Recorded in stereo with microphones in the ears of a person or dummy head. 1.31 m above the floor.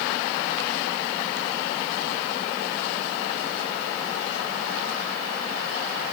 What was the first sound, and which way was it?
Only background noise.